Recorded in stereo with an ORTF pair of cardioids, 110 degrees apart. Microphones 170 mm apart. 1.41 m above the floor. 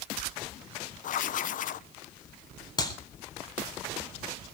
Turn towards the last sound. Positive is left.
turn(degrees=25)